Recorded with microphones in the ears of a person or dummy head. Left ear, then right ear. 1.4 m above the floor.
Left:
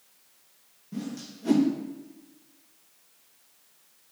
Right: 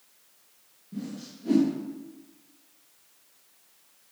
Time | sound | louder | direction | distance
0.9 | a whoosh | left 2 dB | 45° left (ahead or behind) | 1.1 m